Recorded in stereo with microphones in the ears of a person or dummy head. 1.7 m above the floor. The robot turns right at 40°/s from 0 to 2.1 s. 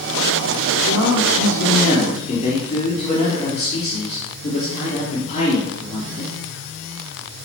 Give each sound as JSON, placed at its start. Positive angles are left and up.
{"t": 0.8, "sound": "a man speaking", "azimuth_deg": 90, "distance_m": 5.0}